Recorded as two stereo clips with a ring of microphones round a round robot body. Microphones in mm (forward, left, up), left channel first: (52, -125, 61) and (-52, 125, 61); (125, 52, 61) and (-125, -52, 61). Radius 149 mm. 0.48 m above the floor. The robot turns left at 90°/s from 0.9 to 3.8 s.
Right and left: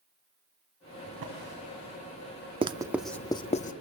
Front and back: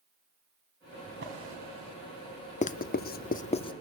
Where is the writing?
60° left, 0.7 m; by 3.7 s 40° right, 0.7 m.